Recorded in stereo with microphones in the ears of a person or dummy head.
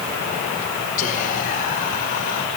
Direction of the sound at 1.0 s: 45° left (ahead or behind).